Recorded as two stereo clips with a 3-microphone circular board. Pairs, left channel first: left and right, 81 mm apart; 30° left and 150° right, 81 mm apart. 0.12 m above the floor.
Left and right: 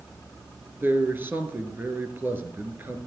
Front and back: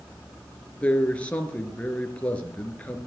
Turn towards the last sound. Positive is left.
turn(degrees=-35)